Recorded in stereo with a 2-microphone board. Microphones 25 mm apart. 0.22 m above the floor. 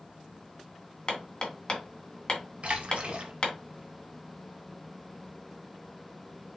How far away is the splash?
About 1.1 m.